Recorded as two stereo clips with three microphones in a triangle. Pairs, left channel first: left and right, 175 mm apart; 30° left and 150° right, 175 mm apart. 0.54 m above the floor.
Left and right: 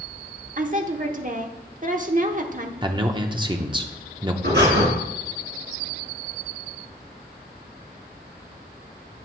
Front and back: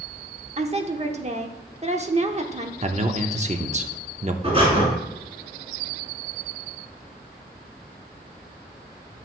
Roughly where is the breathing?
Right.